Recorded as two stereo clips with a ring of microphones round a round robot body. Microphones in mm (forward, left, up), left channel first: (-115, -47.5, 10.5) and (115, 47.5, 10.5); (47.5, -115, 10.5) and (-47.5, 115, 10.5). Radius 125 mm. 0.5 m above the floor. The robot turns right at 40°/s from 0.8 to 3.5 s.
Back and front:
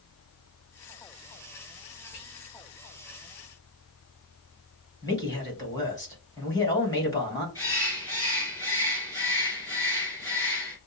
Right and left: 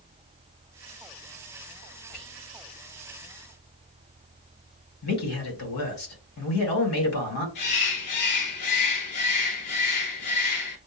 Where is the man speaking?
80° right, 2.5 m.